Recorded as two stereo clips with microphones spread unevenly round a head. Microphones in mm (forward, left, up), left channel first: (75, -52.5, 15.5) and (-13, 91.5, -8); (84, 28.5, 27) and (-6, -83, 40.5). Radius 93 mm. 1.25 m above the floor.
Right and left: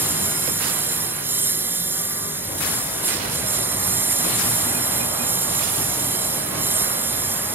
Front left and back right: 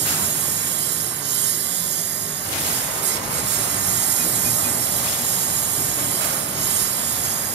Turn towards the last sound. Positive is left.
turn(degrees=-155)